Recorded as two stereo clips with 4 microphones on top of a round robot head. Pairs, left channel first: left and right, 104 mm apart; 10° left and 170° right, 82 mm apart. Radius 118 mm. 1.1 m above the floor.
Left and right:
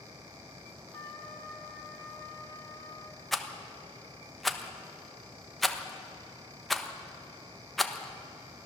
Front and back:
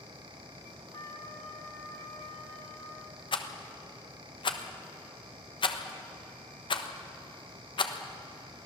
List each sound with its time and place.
0.9 s a trumpet: 30° left, 3 m
3.3 s a rattle: straight ahead, 1.3 m